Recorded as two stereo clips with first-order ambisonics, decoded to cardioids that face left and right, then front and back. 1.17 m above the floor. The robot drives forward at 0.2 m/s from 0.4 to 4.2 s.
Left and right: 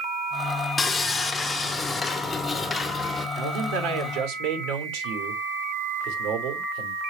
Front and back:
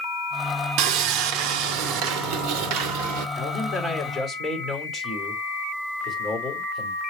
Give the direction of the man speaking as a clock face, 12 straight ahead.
3 o'clock.